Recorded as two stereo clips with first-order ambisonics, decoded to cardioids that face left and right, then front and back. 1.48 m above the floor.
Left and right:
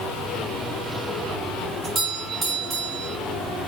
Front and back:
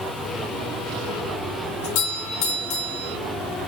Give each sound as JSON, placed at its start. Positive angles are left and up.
{"t": 1.8, "sound": "a doorbell", "azimuth_deg": -25, "distance_m": 1.8}